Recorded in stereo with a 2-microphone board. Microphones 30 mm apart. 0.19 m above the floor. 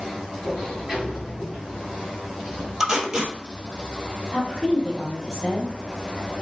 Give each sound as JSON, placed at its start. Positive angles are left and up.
{"t": 0.4, "sound": "a sliding door", "side_deg": -5, "distance_m": 1.5}
{"t": 2.8, "sound": "tape being pulled", "side_deg": -20, "distance_m": 1.2}
{"t": 4.3, "sound": "a woman speaking", "side_deg": 20, "distance_m": 1.1}